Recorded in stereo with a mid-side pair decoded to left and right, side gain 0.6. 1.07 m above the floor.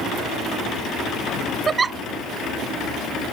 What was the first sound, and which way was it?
A giggle, 30° right.